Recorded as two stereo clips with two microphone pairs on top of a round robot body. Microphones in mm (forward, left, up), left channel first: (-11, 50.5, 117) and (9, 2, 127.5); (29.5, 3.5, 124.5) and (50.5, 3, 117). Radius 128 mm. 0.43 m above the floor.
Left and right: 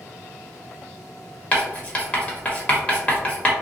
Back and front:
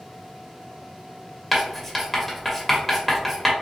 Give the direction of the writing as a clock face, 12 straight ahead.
9 o'clock.